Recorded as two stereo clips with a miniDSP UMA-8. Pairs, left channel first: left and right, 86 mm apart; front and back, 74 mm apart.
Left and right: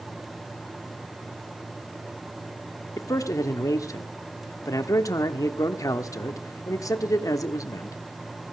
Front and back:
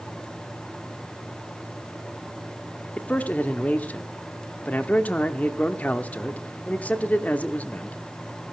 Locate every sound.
3.0 s a man speaking: 65° left, 0.9 m